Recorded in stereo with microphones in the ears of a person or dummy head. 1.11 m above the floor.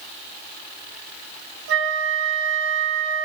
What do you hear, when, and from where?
1.7 s a flute: 75° right (ahead or behind), 1.4 m